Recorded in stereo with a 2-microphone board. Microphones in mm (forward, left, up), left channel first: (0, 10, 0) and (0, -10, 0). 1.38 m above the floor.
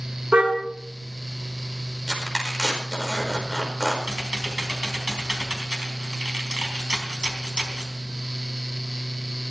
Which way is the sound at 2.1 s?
15° left (ahead or behind).